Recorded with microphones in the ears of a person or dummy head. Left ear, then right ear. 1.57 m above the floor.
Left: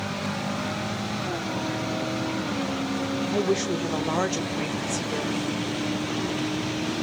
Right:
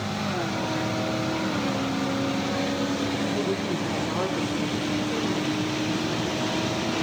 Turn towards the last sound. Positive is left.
turn(degrees=65)  # may be behind; listen again after turning